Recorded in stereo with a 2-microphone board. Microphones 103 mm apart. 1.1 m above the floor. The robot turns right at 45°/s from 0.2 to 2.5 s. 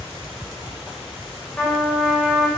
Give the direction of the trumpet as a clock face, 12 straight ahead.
7 o'clock.